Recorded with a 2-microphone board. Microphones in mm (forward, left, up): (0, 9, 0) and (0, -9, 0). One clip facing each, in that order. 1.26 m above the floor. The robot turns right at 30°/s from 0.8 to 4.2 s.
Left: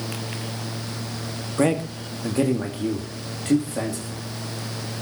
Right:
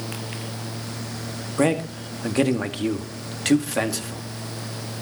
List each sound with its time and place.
1.6 s a man speaking: 5° right (ahead or behind), 2 m; by 4.2 s 85° right, 2 m